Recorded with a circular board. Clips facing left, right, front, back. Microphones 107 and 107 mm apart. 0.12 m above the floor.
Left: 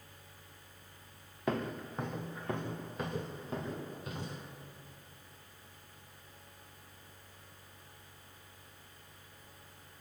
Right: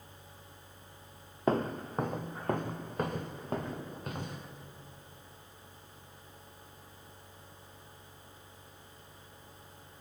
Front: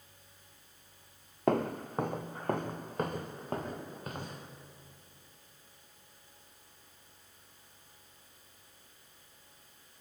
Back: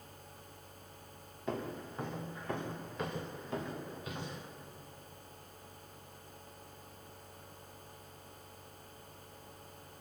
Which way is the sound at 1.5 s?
35° right.